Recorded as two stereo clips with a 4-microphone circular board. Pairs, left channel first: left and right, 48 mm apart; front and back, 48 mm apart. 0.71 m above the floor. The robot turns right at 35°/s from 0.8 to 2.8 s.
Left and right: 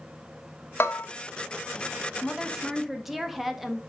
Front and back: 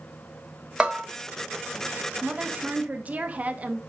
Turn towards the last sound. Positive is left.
turn(degrees=-170)